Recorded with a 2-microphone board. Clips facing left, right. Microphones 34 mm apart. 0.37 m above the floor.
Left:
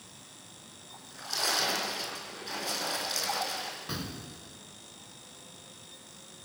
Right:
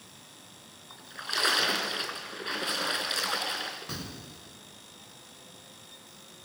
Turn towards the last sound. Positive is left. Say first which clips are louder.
# left 2 dB
turn(degrees=5)  # may be behind; listen again after turning